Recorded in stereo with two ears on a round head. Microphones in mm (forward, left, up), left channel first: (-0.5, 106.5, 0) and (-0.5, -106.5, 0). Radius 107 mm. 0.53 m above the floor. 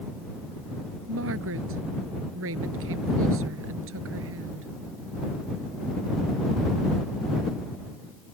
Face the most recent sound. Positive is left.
turn(degrees=-60)  # may be behind; listen again after turning